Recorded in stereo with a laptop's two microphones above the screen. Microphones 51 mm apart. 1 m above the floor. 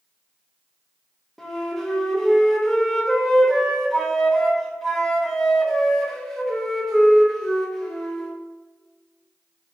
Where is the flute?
Centre (ahead or behind), 1.1 m.